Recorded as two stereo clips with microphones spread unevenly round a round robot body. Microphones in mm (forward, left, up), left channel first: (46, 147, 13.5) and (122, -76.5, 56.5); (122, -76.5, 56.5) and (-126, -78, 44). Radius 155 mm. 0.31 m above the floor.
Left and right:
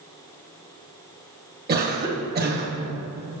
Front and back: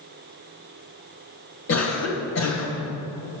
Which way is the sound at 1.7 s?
20° right.